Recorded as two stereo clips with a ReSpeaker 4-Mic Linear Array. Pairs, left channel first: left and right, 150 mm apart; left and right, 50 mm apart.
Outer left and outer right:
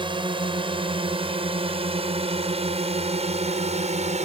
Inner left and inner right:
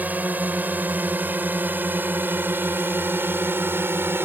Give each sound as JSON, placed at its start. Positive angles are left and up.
{"t": 0.0, "sound": "a drone", "side_deg": -35}